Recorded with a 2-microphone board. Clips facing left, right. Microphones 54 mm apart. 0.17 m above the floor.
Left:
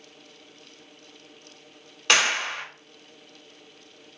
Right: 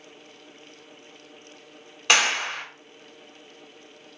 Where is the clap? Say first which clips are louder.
Right 1 dB; 5° right (ahead or behind), 1.2 m.